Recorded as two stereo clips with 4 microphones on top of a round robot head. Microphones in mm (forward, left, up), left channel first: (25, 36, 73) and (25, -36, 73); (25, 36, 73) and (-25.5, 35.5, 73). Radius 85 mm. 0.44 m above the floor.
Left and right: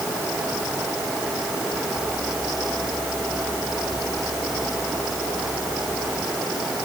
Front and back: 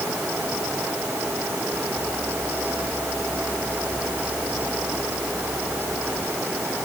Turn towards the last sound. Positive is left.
No sound to turn to.